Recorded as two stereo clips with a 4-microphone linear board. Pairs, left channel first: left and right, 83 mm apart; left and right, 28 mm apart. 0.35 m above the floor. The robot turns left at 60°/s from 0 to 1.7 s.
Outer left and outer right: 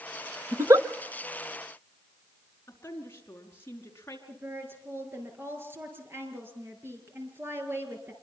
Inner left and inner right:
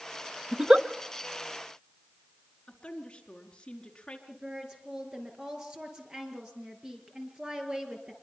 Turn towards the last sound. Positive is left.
turn(degrees=-30)  # may be behind; listen again after turning